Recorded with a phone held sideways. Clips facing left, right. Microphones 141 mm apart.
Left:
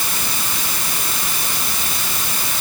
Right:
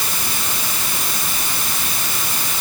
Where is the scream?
I don't hear a scream.